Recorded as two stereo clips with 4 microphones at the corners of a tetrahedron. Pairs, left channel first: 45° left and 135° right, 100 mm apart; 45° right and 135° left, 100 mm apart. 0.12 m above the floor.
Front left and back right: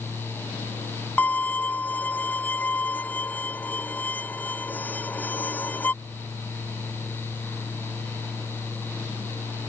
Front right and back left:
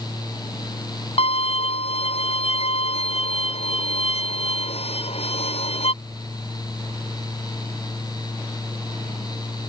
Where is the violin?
30° right.